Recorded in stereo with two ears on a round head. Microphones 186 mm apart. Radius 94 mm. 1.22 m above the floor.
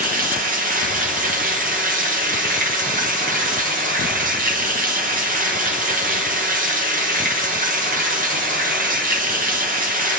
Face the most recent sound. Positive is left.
turn(degrees=-40)  # may be behind; listen again after turning